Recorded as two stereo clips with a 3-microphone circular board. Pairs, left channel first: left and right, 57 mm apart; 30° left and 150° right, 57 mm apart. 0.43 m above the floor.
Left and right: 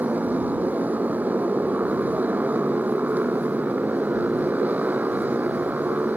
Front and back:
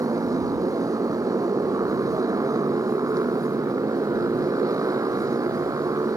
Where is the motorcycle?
150° right.